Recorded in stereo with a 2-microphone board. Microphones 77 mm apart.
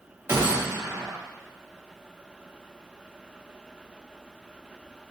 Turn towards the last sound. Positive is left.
turn(degrees=-35)  # may be behind; listen again after turning